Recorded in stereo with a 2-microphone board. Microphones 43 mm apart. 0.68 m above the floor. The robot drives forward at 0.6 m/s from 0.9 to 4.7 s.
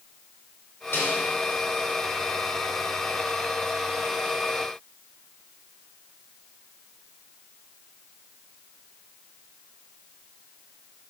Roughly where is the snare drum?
Left.